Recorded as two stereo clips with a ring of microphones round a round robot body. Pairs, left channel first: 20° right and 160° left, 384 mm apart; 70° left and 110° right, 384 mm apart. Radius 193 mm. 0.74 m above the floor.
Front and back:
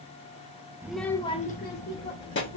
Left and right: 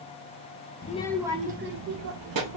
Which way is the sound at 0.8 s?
80° left.